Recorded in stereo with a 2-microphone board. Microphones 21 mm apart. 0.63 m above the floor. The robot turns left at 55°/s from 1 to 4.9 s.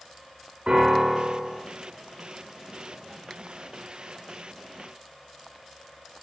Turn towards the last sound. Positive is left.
turn(degrees=75)